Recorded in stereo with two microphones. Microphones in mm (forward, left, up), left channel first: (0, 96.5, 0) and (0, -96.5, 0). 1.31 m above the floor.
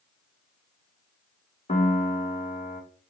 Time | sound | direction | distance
1.7 | a piano | 35° left (ahead or behind) | 1.0 m